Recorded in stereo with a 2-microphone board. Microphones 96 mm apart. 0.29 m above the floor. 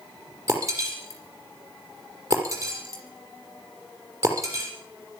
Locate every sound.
0.5 s breaking glass: 35° right (ahead or behind), 6 m